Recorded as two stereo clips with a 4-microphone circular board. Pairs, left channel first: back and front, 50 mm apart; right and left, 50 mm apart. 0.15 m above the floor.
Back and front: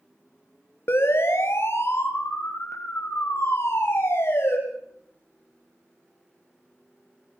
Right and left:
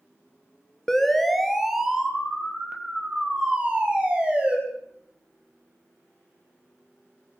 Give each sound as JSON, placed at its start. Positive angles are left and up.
{"t": 0.9, "sound": "a siren", "azimuth_deg": -170, "distance_m": 2.5}